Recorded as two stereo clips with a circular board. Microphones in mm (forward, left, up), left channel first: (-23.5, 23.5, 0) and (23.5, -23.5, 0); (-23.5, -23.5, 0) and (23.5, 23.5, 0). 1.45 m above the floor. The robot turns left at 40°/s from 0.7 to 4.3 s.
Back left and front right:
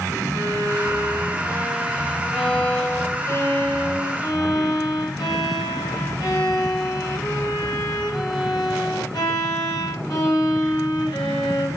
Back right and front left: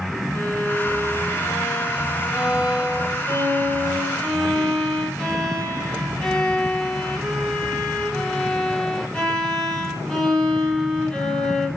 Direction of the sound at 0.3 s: 70° right.